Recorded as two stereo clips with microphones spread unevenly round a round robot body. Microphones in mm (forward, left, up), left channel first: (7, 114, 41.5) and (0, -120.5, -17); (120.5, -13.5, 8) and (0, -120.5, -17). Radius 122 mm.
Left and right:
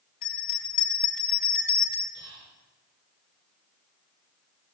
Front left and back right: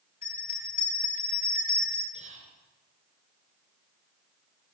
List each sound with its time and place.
0.2 s a bell: 90° left, 4 m
2.1 s whispering: 95° right, 4.5 m